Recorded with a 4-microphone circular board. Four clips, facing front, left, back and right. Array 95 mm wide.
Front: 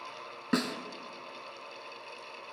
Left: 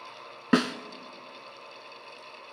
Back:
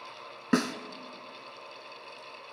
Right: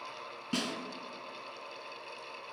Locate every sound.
0.5 s a snare drum: 100° left, 0.8 m